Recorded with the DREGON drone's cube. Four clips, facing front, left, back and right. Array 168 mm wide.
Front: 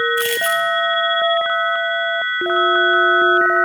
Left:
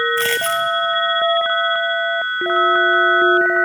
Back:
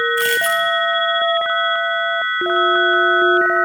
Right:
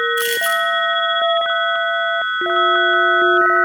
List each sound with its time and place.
0.2 s a dropped coin: 95° left, 1.9 m